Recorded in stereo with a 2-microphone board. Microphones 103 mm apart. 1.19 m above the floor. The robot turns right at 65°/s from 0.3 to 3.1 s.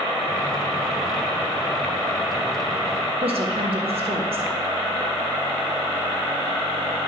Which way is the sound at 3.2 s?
70° right (ahead or behind).